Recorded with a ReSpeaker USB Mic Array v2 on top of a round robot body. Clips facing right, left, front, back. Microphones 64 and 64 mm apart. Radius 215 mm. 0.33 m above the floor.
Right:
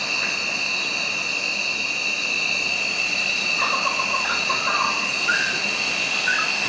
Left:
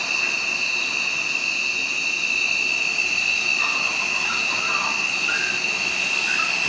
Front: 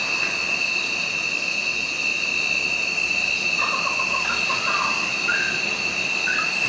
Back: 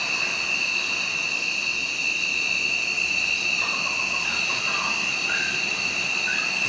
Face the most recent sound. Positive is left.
turn(degrees=-45)